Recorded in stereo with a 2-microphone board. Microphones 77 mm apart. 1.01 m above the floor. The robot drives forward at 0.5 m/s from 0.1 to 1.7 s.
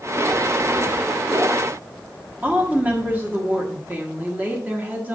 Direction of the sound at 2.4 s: 25° right (ahead or behind).